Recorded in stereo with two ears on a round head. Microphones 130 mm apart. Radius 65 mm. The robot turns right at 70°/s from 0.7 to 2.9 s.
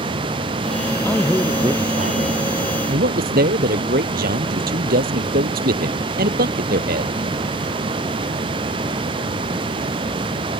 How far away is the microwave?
I don't hear a microwave.